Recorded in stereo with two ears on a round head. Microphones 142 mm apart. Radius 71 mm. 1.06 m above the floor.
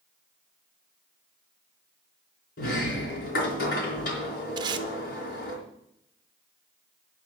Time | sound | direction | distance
2.6 | a sliding door | 65° left (ahead or behind) | 4 m
4.6 | tape being pulled | 30° right (ahead or behind) | 1.0 m